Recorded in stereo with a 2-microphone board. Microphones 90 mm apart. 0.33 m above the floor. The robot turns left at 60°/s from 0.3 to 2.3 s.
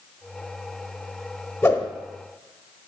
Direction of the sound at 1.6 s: 25° left (ahead or behind).